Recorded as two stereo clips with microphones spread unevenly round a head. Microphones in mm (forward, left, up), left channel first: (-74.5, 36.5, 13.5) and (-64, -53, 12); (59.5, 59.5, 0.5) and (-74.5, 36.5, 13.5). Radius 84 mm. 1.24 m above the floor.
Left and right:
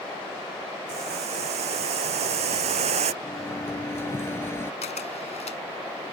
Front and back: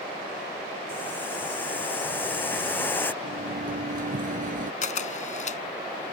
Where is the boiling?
70° right.